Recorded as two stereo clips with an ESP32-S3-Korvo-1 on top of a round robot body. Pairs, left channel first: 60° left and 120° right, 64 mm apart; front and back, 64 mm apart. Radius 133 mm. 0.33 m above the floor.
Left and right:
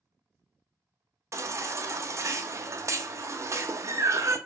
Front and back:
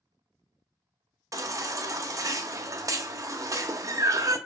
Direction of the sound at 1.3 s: 155° right.